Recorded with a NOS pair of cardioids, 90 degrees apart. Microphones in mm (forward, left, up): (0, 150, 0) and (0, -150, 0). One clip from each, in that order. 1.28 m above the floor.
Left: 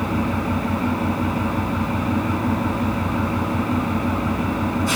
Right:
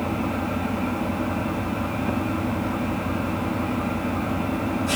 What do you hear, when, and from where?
0.0 s an engine running: 40° left, 5 m